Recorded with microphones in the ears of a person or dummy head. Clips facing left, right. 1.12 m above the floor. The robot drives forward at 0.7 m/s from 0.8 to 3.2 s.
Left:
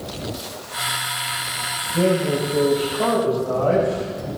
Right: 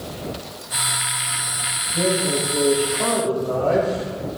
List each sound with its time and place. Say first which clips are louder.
1.9 s a man speaking: left 3 dB; 35° left (ahead or behind), 7 m; by 4.3 s 30° left (ahead or behind), 7.5 m